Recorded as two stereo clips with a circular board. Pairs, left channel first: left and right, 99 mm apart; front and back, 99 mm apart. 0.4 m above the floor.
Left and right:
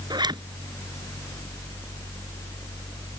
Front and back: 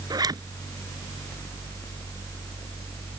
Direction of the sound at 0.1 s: 135° right.